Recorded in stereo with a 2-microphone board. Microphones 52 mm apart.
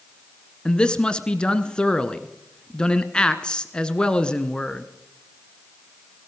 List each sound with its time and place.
0.7 s a man speaking: 15° left (ahead or behind), 1.2 m